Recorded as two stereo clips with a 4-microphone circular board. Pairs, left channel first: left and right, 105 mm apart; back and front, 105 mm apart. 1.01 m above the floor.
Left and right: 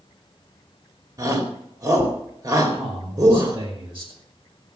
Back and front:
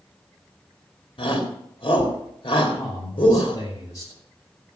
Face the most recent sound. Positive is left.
turn(degrees=-125)